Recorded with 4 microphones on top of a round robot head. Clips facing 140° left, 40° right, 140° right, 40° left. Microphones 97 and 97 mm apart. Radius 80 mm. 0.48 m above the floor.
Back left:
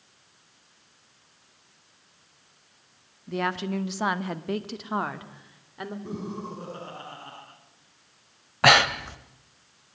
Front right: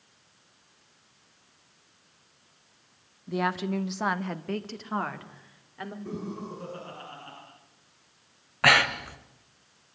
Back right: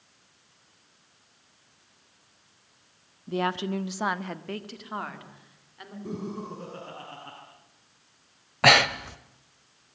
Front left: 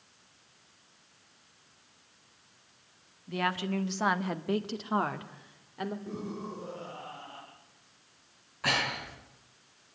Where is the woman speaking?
120° right, 1.5 m; by 6.0 s 70° left, 2.5 m.